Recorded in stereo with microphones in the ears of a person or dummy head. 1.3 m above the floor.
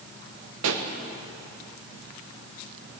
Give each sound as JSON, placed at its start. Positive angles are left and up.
{"t": 0.6, "sound": "a pop", "side_deg": -75, "distance_m": 1.1}